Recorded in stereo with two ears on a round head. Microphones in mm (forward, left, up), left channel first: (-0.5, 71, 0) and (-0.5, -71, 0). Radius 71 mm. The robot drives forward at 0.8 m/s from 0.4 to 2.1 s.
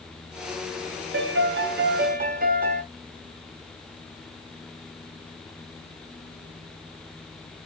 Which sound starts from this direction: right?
A piano, at 1.1 s.